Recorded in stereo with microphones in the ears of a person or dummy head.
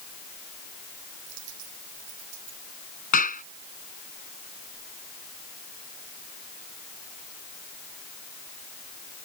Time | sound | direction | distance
1.3 | a dropped coin | 60° right (ahead or behind) | ?
3.1 | a clap | 45° left (ahead or behind) | ?